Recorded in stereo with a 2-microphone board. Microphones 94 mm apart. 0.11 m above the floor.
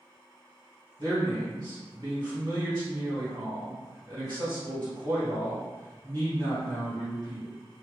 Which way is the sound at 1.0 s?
45° right (ahead or behind).